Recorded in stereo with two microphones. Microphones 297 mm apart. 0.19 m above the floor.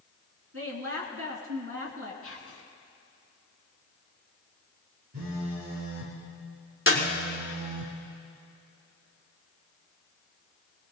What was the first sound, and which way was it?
A woman speaking, 50° right (ahead or behind).